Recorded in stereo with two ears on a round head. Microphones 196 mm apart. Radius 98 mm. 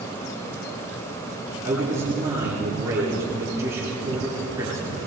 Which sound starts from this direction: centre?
A man speaking, at 1.6 s.